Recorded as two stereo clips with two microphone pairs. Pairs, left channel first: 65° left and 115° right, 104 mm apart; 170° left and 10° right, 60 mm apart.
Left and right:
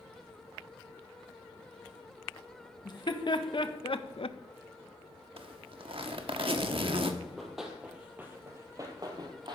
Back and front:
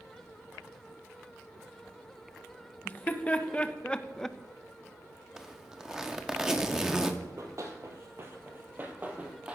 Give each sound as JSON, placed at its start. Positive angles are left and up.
{"t": 2.9, "sound": "laughter", "azimuth_deg": 105, "distance_m": 1.6}
{"t": 5.4, "sound": "a zipper", "azimuth_deg": -90, "distance_m": 1.2}
{"t": 7.2, "sound": "running footsteps", "azimuth_deg": -25, "distance_m": 2.5}